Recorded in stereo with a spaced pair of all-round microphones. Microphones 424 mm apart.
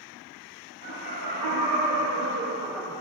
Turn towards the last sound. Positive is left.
turn(degrees=15)  # may be behind; listen again after turning